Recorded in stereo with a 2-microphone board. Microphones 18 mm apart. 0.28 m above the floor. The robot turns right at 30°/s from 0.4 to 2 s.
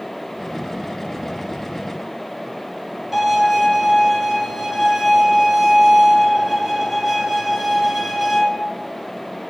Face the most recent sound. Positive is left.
turn(degrees=-15)  # may be behind; listen again after turning